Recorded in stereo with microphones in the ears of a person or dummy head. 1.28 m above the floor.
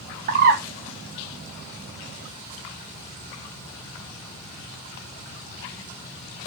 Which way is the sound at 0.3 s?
45° right (ahead or behind).